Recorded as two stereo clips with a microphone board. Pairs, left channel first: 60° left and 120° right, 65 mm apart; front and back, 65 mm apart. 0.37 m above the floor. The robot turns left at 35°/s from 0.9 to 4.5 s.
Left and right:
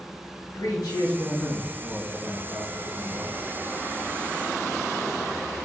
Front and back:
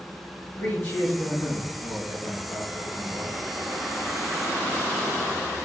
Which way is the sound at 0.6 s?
60° left.